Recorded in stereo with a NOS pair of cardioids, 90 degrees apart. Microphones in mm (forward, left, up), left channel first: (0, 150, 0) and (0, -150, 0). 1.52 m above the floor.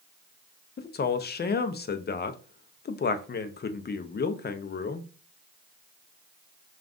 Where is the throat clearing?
I don't hear throat clearing.